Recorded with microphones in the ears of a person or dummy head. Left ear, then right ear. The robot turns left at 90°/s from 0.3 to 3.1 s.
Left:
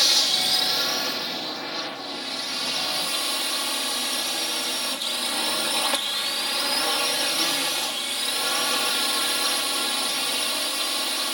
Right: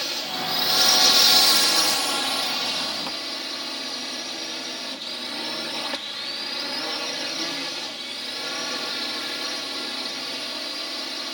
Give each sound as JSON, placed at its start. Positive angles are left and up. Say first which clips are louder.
{"t": 0.0, "sound": "a drone", "louder": "left 8 dB", "azimuth_deg": 35}